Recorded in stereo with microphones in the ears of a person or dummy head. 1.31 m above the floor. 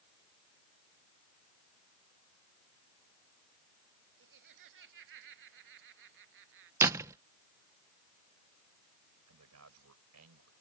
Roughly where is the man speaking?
Right.